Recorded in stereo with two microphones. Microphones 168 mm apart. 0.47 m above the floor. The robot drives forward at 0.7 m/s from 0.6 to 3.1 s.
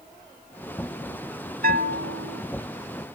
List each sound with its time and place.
1.6 s a bell: 60° right (ahead or behind); by 2.4 s 75° right (ahead or behind)